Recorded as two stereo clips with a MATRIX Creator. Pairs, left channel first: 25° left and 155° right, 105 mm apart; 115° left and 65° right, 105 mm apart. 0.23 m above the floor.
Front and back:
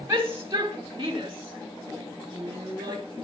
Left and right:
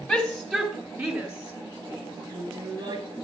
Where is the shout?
170° right, 1.6 m; by 3.2 s 105° right, 4.5 m.